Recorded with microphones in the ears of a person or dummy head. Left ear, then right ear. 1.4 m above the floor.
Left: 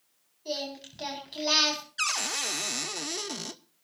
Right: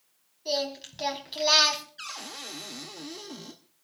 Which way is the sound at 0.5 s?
10° right (ahead or behind).